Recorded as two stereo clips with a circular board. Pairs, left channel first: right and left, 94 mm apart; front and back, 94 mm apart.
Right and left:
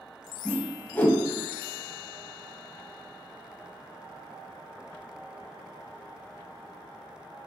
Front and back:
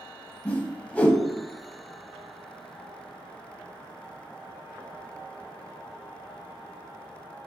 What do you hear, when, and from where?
0.5 s a whoosh: 50° right, 0.5 m